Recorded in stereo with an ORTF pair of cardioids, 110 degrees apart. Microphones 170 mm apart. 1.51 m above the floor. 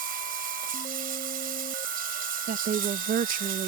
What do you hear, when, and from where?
0.0 s running water: 60° right
2.5 s a woman speaking: 55° right